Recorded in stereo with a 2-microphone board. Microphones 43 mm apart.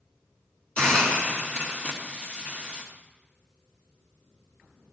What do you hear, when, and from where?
0.8 s a hiss: 35° left (ahead or behind), 3 m